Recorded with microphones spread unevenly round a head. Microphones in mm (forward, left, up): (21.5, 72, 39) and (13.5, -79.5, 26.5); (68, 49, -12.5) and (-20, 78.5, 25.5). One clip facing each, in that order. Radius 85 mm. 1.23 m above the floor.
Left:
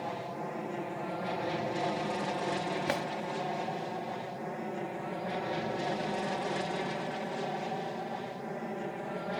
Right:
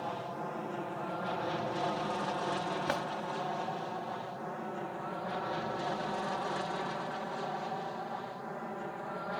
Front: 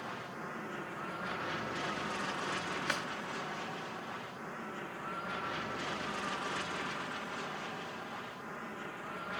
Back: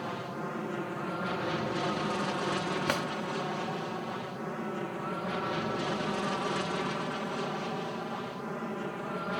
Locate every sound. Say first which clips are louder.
0.0 s an aircraft: left 1 dB, back 7 dB; 160° left; by 9.4 s 150° left
2.9 s a drawer: left 2 dB, back 7 dB; 160° left